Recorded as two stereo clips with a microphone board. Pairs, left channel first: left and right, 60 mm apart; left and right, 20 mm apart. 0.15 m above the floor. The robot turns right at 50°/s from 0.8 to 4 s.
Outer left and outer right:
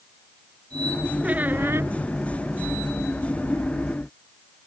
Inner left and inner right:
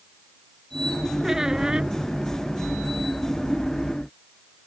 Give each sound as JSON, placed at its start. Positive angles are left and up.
{"t": 1.2, "sound": "a squeak", "azimuth_deg": -155}